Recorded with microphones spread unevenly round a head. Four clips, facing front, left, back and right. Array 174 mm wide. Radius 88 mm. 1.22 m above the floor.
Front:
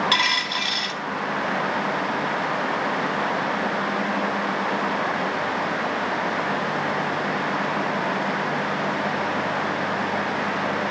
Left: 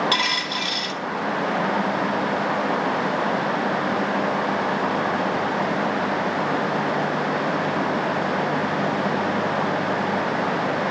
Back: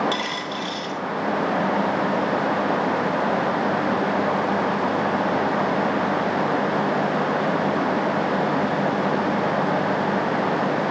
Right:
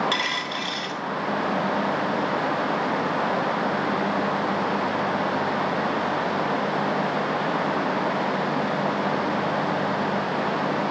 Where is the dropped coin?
10° right, 3 m.